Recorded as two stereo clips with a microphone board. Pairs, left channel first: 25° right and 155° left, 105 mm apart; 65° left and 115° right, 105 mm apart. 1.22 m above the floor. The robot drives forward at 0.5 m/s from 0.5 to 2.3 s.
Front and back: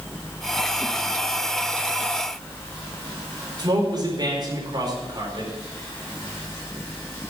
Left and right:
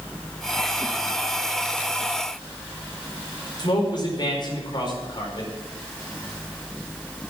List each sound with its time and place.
3.6 s a man speaking: 110° left, 4.5 m